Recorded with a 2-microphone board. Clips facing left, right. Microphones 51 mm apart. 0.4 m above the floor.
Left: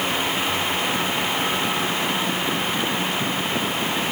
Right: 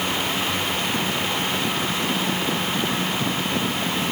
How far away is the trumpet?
I don't hear a trumpet.